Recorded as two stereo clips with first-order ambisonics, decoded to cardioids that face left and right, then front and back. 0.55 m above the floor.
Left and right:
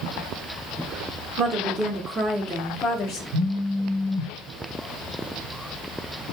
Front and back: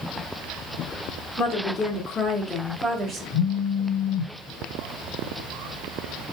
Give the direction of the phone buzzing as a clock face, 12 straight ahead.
1 o'clock.